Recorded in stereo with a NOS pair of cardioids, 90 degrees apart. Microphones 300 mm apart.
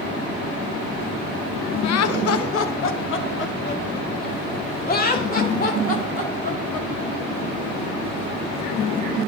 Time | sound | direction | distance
1.8 | laughter | 65° left | 0.8 m